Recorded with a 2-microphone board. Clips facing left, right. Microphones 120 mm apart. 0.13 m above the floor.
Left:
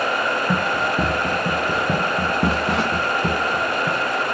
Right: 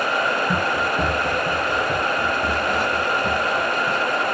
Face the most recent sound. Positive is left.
turn(degrees=55)  # may be behind; listen again after turning